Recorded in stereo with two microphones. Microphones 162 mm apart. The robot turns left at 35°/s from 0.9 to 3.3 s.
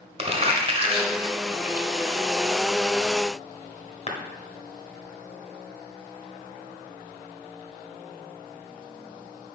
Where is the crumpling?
35° right (ahead or behind), 1.1 m; by 4.1 s 40° left (ahead or behind), 1.1 m.